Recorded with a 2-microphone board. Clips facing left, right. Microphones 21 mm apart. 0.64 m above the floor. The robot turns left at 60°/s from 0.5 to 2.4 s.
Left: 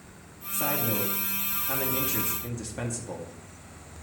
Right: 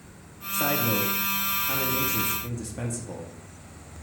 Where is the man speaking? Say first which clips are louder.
Right 4 dB; 110° right, 0.6 m; by 3.3 s 135° left, 0.6 m.